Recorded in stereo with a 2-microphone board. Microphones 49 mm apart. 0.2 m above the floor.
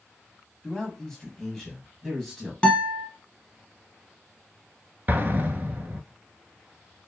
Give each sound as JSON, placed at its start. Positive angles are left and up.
{"t": 0.6, "sound": "a man speaking", "side_deg": 15, "distance_m": 1.5}
{"t": 2.6, "sound": "a guitar", "side_deg": 20, "distance_m": 1.1}
{"t": 5.1, "sound": "an explosion", "side_deg": -45, "distance_m": 0.7}